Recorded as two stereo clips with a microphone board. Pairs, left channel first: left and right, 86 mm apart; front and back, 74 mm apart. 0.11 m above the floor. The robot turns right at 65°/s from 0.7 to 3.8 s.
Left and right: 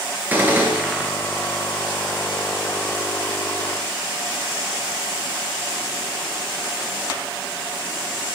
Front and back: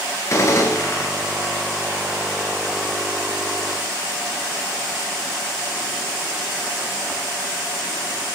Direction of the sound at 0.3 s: 30° right.